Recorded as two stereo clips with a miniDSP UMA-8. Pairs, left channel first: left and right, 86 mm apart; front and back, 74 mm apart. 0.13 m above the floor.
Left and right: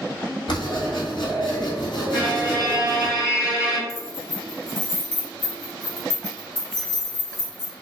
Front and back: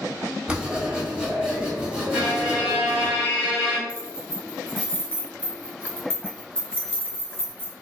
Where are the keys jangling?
70° right, 1.3 m.